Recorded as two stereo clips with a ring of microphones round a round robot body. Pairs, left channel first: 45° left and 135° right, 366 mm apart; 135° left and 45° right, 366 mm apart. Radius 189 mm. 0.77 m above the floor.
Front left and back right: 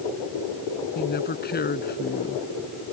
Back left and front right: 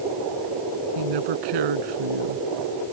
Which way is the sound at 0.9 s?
20° right.